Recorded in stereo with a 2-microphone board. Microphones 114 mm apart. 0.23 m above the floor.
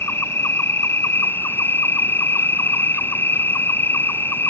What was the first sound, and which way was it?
An insect, 20° left (ahead or behind).